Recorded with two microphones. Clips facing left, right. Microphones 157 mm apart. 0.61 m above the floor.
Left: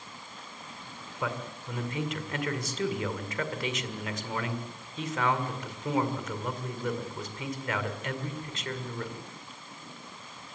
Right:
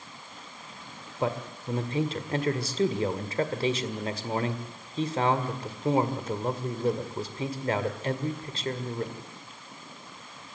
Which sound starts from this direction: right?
A man speaking, at 1.2 s.